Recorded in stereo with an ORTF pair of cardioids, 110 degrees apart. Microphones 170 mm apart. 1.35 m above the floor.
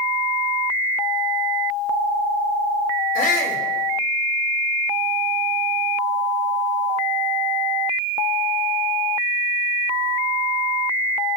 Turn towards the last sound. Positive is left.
turn(degrees=55)